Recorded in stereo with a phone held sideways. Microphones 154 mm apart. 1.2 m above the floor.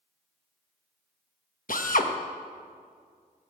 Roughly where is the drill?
Left.